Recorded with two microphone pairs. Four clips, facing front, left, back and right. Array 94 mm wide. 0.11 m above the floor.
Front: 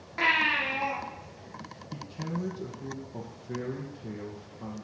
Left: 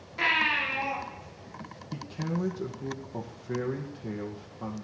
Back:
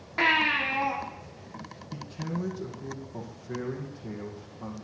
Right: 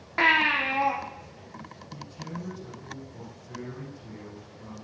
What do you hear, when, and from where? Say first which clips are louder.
0.2 s a baby crying: right 5 dB, back 2 dB; 105° right, 4.5 m
1.9 s a man speaking: left 7 dB, back 1 dB; 85° left, 2.5 m